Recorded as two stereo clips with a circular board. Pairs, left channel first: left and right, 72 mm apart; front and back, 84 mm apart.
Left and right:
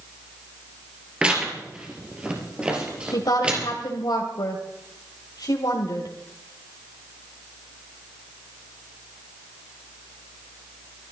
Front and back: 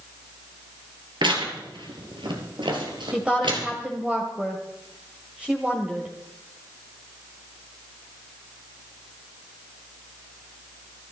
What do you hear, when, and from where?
1.2 s tearing paper: 165° right, 3.5 m
3.1 s a woman speaking: 105° left, 2 m